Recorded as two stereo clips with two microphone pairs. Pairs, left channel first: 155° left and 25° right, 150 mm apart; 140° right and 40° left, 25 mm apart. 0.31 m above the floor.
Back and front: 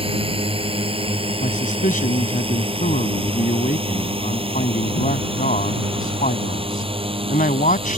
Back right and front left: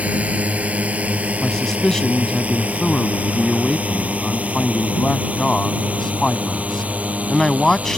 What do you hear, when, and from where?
0.0 s a drone: 25° left; by 8.0 s 30° left
1.4 s a man speaking: 155° left